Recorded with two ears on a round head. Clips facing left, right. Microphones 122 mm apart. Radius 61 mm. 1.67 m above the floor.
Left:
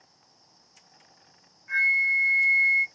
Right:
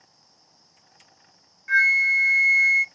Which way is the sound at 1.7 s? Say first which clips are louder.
Right 6 dB; 85° right.